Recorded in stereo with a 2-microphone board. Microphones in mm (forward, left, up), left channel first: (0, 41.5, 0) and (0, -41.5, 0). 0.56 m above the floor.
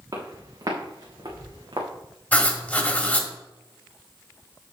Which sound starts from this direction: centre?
Writing, at 2.3 s.